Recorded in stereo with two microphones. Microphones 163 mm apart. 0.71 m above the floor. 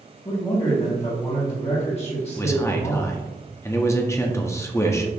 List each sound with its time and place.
0.2 s a man speaking: 40° left (ahead or behind), 1.4 m
2.4 s a man speaking: 15° left (ahead or behind), 0.5 m